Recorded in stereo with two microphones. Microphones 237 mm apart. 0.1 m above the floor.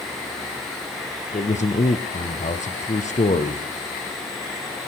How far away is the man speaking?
About 1.6 m.